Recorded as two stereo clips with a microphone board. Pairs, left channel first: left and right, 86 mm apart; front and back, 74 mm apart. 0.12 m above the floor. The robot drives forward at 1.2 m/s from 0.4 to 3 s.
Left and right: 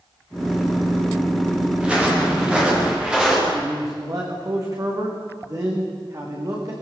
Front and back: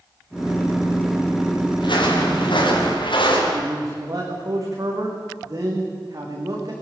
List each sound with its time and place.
1.8 s footsteps: 10° right, 9 m; by 3.4 s 5° right, 8.5 m
3.5 s a man speaking: 135° right, 8 m